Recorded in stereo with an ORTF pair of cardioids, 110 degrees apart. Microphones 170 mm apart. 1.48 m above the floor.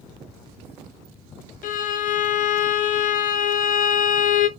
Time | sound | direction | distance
1.6 | a violin | 55° left | 0.7 m